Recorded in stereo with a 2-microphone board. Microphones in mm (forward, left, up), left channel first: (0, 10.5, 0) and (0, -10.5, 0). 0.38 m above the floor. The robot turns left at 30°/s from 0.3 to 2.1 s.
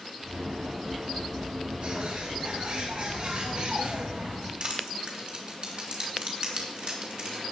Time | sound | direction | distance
1.8 | a bird | 70° right (ahead or behind) | 3.5 m
4.6 | crushing | 50° right (ahead or behind) | 3 m